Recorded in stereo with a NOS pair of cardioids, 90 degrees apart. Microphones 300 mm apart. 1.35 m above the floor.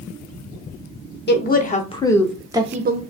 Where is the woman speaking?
35° left, 0.9 m; by 3.0 s 40° right, 0.5 m.